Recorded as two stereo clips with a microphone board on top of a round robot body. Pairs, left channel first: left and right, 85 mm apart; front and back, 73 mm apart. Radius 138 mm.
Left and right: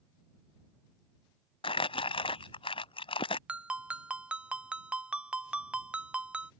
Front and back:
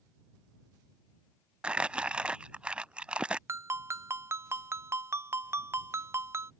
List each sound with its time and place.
1.6 s crumpling: 105° left
3.5 s a ringtone: 160° right